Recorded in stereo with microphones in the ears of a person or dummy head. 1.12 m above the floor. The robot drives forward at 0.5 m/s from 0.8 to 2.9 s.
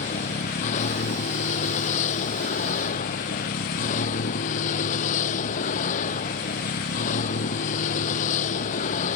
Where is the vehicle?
45° left (ahead or behind).